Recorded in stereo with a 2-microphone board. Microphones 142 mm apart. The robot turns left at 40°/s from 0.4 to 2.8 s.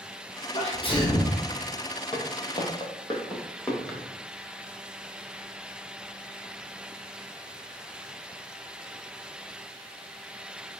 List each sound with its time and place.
0.5 s a sneeze: 55° left, 1.2 m; by 1.4 s 25° left, 1.2 m
2.1 s footsteps: 40° left (ahead or behind), 1.5 m; by 3.8 s 15° left (ahead or behind), 1.7 m
3.9 s a drawer: centre (ahead or behind), 1.0 m